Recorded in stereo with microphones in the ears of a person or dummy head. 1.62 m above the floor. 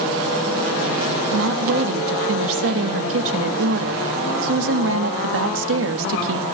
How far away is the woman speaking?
About 1.5 m.